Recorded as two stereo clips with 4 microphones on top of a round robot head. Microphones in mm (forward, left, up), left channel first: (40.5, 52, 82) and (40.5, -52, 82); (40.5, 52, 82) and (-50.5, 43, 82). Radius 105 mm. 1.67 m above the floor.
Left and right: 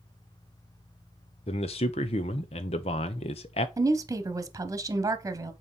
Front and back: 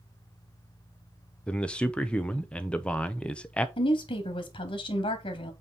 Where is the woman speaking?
30° right, 1.1 m.